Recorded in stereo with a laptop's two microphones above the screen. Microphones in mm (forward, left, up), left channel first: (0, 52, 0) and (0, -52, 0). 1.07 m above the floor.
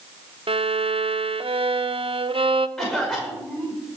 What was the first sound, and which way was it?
A violin, 60° right (ahead or behind).